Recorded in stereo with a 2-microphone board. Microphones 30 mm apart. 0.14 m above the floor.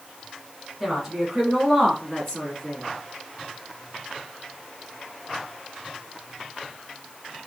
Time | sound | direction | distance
0.8 | a woman speaking | 20° right (ahead or behind) | 1.3 m